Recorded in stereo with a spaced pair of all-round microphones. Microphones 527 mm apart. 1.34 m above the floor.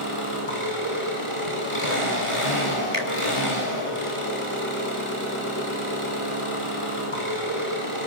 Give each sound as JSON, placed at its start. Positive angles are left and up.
{"t": 0.0, "sound": "an engine running", "side_deg": 70, "distance_m": 8.0}
{"t": 2.9, "sound": "a finger snap", "side_deg": -80, "distance_m": 3.5}